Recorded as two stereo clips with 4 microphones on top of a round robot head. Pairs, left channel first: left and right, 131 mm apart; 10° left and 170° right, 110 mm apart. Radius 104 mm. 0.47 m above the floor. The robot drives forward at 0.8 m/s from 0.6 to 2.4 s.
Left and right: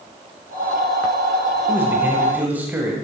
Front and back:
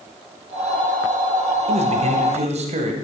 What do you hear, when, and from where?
1.7 s a man speaking: 165° right, 2.5 m; by 2.9 s 170° right, 3 m